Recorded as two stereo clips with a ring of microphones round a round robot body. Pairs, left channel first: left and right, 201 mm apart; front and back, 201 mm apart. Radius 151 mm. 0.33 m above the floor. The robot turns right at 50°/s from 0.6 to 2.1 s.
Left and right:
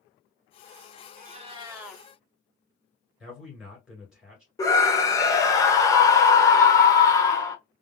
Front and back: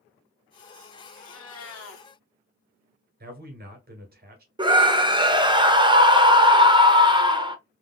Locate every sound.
1.1 s a cat meowing: 40° right, 1.3 m; by 2.0 s 5° left, 1.3 m
3.2 s a man speaking: 175° right, 2.0 m
4.6 s a scream: 145° left, 0.9 m